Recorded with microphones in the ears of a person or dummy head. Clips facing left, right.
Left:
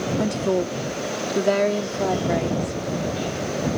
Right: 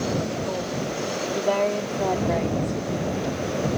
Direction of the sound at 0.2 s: 55° left (ahead or behind).